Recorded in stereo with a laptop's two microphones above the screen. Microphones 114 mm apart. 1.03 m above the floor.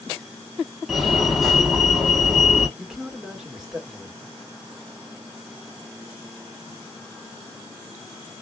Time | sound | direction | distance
0.9 | a fire alarm | centre (ahead or behind) | 1.7 m
2.8 | a man speaking | 5° right (ahead or behind) | 1.7 m